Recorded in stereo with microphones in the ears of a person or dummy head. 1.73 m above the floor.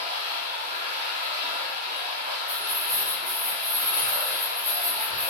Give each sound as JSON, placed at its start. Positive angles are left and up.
{"t": 0.0, "sound": "running water", "side_deg": -55, "distance_m": 1.3}
{"t": 2.5, "sound": "keys jangling", "side_deg": -25, "distance_m": 1.0}